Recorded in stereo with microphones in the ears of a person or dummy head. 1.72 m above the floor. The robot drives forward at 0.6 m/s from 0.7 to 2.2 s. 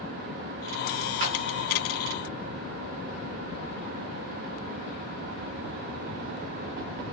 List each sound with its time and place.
1.2 s a splash: 35° right (ahead or behind), 1.0 m